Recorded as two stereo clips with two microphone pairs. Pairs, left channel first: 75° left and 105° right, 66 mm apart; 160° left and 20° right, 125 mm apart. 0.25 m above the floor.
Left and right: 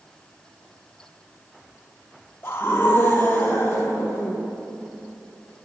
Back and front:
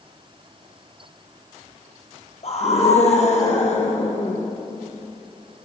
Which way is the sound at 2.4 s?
130° left.